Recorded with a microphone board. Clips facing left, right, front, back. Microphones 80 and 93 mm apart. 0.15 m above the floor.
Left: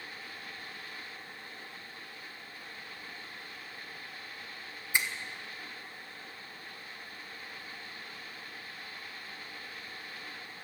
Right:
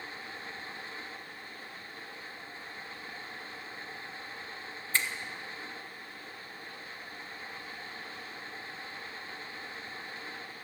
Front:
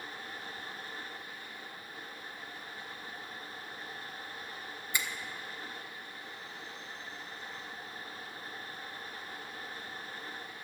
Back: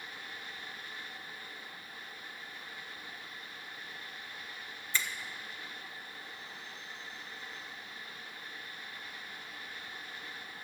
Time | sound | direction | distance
4.9 | a finger snap | 50° left | 0.8 m